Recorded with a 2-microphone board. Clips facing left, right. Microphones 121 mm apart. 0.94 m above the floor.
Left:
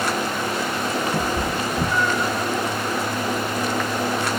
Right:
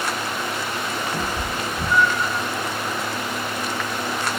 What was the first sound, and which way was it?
A cat meowing, 70° left (ahead or behind).